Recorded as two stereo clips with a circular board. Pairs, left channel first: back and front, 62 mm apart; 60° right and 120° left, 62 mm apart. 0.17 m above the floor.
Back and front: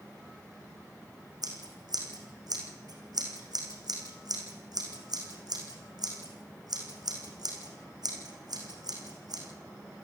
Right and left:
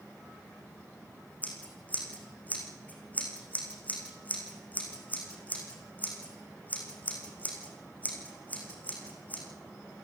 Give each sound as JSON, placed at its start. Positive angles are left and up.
{"t": 1.4, "sound": "scissors", "azimuth_deg": 5, "distance_m": 5.5}